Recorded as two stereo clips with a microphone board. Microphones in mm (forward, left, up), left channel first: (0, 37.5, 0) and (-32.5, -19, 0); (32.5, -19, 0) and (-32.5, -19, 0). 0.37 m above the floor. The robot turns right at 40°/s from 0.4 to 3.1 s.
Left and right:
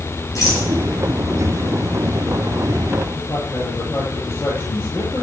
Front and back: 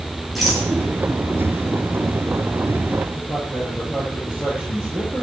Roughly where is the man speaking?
Behind left.